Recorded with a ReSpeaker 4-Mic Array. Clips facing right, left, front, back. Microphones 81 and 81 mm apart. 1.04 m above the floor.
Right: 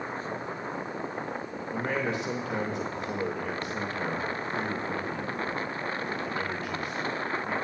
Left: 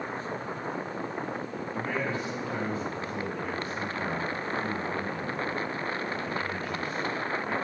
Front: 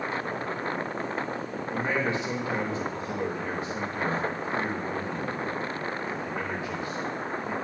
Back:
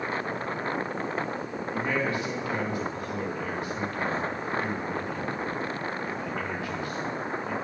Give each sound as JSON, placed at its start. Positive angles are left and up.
{"t": 1.7, "sound": "a man speaking", "azimuth_deg": -70, "distance_m": 1.1}